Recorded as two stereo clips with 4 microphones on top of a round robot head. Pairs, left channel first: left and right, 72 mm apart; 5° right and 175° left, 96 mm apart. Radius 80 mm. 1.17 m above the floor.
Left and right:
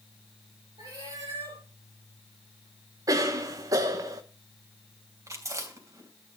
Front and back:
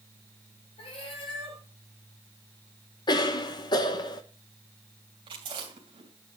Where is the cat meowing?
45° right, 9 m.